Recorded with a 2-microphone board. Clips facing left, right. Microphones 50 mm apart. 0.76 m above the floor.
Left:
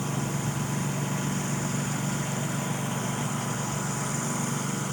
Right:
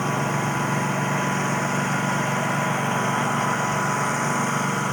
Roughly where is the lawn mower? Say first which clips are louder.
Right 7 dB; right.